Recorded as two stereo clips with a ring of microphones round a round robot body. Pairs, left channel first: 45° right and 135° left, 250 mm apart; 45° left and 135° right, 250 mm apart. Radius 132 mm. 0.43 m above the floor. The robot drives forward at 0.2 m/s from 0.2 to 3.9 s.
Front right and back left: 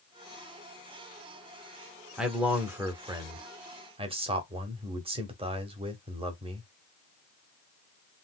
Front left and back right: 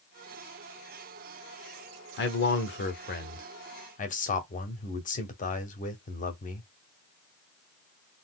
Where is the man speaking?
50° left, 0.9 m; by 6.7 s 80° left, 0.8 m.